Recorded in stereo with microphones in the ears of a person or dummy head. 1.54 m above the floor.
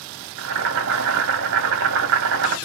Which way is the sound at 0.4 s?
60° right (ahead or behind).